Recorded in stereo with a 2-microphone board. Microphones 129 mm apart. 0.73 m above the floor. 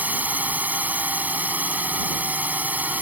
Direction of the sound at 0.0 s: 10° right (ahead or behind).